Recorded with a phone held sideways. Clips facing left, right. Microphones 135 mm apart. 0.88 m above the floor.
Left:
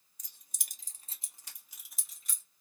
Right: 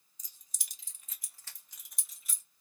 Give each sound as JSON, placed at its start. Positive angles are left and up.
{"t": 0.2, "sound": "keys jangling", "side_deg": 65, "distance_m": 0.7}